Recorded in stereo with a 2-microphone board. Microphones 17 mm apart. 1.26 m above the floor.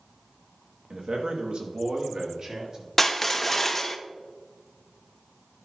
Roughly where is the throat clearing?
No throat clearing in this recording.